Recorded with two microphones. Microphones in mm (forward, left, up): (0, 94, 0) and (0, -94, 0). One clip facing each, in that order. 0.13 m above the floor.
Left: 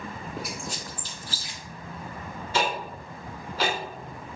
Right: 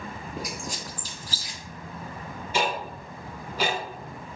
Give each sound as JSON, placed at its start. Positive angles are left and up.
{"t": 0.4, "sound": "a squeak", "side_deg": -45, "distance_m": 0.6}
{"t": 2.5, "sound": "ticking", "side_deg": -15, "distance_m": 0.8}